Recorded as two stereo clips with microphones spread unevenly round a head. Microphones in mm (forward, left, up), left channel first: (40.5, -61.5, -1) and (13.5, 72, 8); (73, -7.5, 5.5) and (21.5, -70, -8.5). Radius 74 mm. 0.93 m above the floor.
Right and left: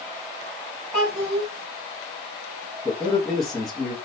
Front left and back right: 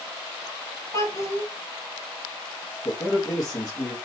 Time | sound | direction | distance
0.9 | a child speaking | 5° left | 2 m
2.9 | a man speaking | 10° left | 1.3 m